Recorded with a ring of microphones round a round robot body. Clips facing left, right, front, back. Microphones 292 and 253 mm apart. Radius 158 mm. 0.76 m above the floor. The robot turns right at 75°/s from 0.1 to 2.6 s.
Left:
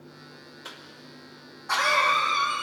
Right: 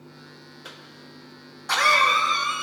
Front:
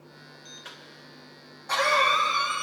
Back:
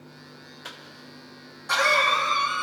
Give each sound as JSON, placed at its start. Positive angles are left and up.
{"t": 0.7, "sound": "a cough", "azimuth_deg": 175, "distance_m": 1.4}